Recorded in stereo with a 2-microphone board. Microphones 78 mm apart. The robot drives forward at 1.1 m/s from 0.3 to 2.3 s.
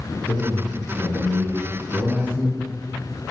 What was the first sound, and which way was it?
A man speaking, 35° left (ahead or behind).